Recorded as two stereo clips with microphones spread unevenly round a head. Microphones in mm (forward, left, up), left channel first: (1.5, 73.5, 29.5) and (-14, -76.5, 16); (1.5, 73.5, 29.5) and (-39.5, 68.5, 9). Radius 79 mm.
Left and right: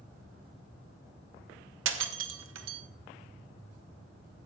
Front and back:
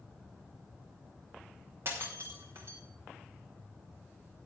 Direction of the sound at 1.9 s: 100° right.